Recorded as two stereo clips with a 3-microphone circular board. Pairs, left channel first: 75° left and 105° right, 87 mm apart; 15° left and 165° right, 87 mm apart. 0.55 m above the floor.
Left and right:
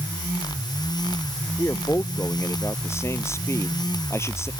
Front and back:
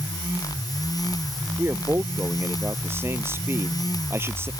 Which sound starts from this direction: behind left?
A man speaking, at 1.6 s.